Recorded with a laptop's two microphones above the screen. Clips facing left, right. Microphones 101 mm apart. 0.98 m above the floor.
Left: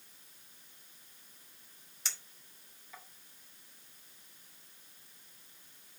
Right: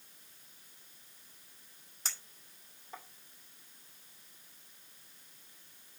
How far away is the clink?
About 2.5 m.